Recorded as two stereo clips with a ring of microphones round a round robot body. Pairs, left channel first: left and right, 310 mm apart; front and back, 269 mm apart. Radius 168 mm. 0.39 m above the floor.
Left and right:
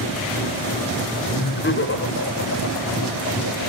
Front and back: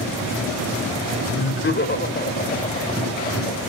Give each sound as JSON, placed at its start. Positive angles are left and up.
{"t": 1.3, "sound": "laughter", "azimuth_deg": 35, "distance_m": 1.8}